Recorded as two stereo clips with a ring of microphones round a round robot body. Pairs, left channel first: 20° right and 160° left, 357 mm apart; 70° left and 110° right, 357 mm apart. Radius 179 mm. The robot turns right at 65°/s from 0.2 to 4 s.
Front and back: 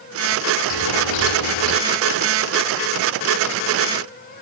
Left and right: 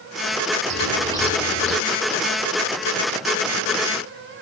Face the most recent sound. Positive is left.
turn(degrees=150)